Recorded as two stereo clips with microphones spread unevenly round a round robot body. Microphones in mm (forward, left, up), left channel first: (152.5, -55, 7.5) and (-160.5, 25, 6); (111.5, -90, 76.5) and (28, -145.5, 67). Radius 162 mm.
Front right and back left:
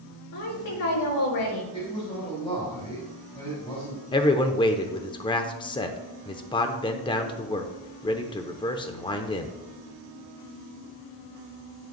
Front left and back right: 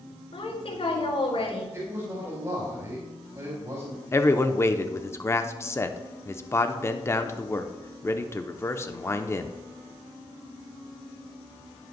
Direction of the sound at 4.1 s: 30° left.